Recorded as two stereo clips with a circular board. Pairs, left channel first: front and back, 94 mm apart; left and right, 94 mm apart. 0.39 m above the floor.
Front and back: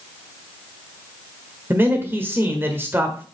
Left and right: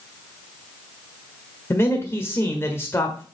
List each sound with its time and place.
1.7 s a man speaking: 130° left, 1.3 m